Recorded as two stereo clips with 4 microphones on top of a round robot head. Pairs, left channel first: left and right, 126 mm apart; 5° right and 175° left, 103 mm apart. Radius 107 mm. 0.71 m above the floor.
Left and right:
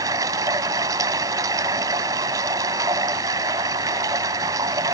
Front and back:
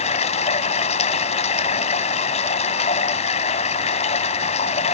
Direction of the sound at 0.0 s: 25° right.